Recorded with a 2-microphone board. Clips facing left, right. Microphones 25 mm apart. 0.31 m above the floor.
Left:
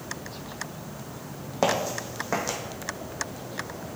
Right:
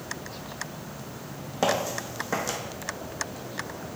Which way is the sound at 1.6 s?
15° left (ahead or behind).